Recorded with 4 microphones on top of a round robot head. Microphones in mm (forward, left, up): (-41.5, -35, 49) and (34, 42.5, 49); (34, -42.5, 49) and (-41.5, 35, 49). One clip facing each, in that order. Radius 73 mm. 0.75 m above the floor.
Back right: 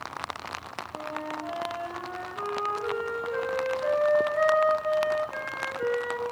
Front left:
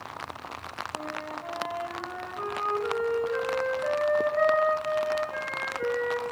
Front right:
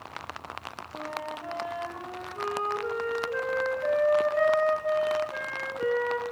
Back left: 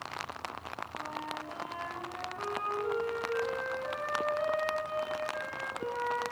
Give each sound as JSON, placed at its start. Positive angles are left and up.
{"t": 0.9, "sound": "a flute", "azimuth_deg": -50, "distance_m": 3.5}